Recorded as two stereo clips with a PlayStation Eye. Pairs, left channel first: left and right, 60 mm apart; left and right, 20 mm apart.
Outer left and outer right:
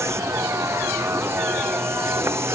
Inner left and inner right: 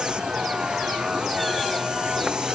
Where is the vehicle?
45° right (ahead or behind).